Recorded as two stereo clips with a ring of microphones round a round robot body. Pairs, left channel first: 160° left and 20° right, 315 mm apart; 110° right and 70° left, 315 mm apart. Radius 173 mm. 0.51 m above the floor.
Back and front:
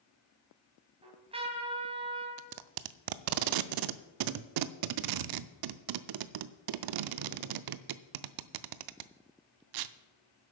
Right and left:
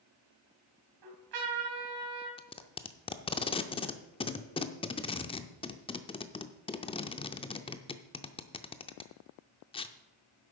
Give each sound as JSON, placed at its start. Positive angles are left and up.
{"t": 1.0, "sound": "a trumpet", "azimuth_deg": 50, "distance_m": 2.5}
{"t": 2.4, "sound": "tape being pulled", "azimuth_deg": -40, "distance_m": 0.5}